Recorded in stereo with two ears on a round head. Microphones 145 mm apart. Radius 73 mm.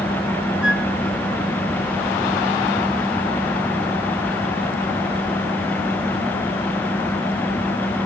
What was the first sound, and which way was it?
A flute, 5° right (ahead or behind).